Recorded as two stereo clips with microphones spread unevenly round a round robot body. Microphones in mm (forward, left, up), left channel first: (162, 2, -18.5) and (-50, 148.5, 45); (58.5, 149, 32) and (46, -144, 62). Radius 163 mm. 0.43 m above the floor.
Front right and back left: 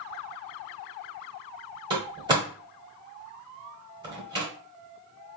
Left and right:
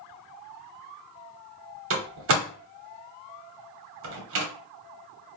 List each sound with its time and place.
1.9 s a door slam: 130° right, 0.9 m